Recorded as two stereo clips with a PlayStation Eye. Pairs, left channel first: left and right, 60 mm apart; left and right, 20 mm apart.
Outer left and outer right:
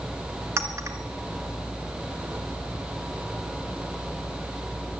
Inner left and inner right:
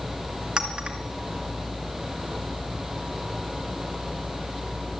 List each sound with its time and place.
0.6 s a clink: 50° right (ahead or behind), 2 m